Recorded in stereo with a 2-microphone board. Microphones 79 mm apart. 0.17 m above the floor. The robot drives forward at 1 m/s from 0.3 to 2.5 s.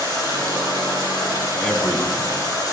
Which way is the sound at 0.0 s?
65° left (ahead or behind).